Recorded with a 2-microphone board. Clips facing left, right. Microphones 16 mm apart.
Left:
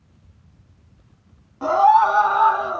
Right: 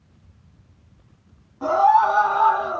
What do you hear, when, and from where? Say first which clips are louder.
1.6 s a scream: left 2 dB; 55° left (ahead or behind), 3 m; by 2.8 s 50° left (ahead or behind), 4.5 m